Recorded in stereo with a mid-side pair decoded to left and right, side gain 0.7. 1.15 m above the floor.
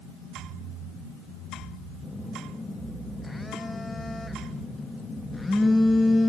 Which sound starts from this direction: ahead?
A phone buzzing, at 2.0 s.